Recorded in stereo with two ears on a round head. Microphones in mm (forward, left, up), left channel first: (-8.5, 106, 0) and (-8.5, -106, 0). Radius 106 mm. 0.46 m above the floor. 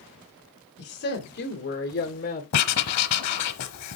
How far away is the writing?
About 0.9 m.